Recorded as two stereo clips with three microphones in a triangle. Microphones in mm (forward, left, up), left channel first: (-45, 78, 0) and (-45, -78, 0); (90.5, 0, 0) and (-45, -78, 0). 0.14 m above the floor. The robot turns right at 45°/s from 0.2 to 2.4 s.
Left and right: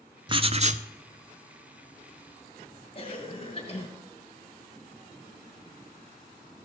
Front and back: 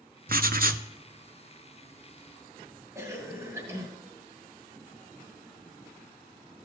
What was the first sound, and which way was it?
Writing, 150° right.